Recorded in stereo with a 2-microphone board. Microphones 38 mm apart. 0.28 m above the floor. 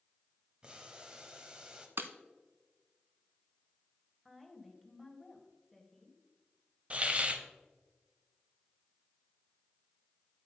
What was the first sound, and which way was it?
Boiling, 25° right (ahead or behind).